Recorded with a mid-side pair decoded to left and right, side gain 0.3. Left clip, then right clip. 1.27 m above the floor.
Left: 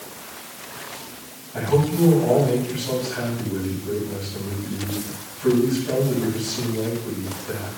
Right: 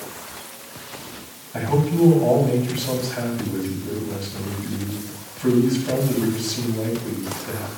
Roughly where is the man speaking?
Ahead right.